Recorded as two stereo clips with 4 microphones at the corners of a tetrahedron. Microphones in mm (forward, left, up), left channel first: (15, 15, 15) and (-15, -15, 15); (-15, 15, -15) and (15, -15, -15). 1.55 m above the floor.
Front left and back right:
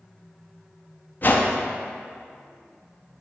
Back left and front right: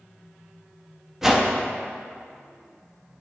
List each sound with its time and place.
1.2 s a whoosh: 30° left, 0.5 m